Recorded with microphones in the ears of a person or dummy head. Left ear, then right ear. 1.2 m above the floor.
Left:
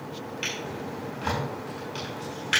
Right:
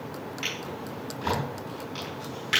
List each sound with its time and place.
0.4 s a drawer: 5° left (ahead or behind), 5 m